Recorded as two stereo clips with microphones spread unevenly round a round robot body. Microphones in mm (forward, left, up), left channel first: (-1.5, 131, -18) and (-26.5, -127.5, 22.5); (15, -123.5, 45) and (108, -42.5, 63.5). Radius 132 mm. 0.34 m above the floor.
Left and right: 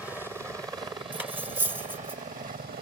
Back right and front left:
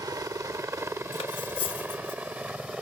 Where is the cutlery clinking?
Straight behind.